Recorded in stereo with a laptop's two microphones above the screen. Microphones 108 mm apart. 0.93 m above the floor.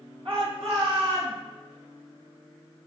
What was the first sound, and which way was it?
A shout, 55° right (ahead or behind).